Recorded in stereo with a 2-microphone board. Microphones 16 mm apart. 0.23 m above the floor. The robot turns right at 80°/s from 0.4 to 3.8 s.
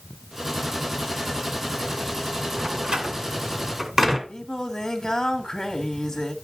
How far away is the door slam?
About 1.9 m.